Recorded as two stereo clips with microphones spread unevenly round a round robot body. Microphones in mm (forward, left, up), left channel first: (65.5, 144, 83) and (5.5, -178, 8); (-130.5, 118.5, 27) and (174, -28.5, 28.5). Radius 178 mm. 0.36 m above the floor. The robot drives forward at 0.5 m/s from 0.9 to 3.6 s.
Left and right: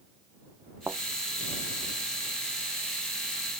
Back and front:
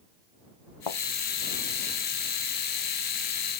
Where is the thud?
175° left.